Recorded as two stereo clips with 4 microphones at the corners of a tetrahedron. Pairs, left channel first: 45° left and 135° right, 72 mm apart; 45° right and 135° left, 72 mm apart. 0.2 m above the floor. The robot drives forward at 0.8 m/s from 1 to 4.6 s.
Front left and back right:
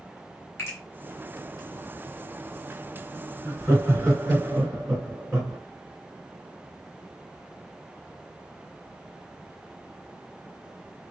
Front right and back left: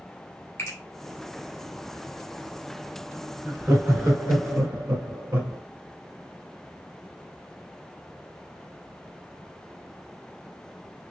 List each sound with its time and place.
0.6 s a finger snap: straight ahead, 2.5 m
3.5 s laughter: 170° right, 2.5 m; by 5.6 s 175° right, 3 m